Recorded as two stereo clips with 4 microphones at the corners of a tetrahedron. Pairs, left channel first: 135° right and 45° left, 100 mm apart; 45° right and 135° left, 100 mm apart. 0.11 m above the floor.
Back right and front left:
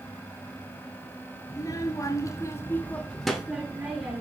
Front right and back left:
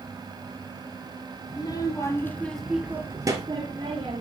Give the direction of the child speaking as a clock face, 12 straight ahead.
3 o'clock.